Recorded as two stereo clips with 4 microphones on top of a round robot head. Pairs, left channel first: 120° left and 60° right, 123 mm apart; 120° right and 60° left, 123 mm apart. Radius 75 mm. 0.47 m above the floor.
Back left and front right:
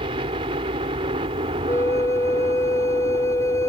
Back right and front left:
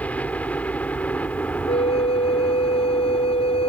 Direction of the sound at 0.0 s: 45° right.